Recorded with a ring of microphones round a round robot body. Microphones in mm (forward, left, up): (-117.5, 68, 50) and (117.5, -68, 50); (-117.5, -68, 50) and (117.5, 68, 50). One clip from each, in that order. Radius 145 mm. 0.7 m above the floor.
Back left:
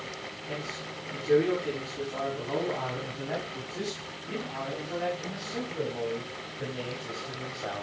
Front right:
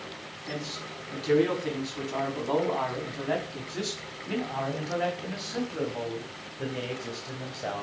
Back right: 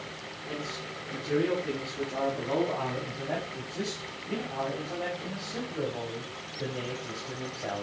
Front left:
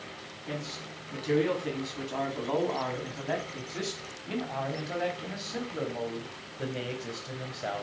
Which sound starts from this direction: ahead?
A man speaking, at 0.5 s.